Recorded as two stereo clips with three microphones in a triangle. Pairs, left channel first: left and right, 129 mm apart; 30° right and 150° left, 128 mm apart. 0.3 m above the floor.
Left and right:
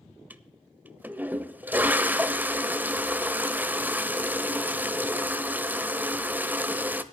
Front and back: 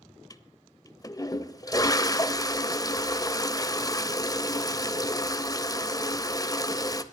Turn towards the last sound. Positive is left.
turn(degrees=-30)